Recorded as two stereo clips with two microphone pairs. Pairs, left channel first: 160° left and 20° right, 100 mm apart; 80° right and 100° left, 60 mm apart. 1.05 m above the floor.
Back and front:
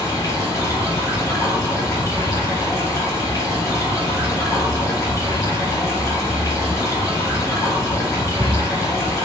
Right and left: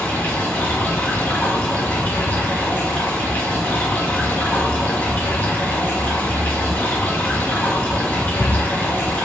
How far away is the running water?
About 1.3 m.